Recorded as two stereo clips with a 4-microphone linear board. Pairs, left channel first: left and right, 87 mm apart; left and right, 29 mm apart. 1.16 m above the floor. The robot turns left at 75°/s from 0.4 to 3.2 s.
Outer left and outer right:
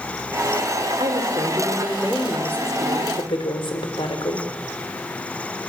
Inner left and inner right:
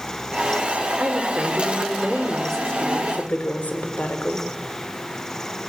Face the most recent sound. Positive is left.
turn(degrees=110)